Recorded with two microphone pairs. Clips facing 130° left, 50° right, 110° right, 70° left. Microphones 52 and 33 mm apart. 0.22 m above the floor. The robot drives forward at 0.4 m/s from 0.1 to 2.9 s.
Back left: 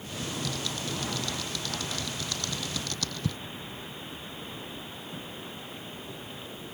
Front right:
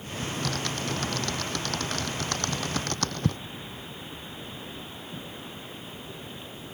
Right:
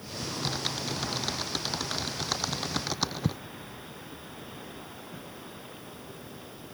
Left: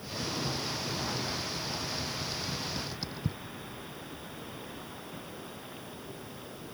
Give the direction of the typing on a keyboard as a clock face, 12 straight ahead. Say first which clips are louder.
Front right 3 dB, right 2 dB; 3 o'clock.